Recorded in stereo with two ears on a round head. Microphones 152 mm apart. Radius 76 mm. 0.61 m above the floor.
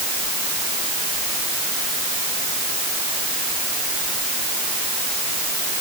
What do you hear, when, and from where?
Only background noise.